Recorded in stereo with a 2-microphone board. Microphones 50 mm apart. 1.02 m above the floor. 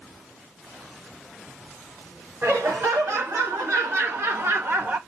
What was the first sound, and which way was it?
Laughter, 75° right (ahead or behind).